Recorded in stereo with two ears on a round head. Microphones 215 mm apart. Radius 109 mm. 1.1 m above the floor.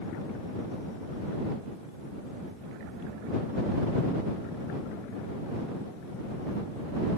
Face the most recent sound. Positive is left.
No sound to turn to.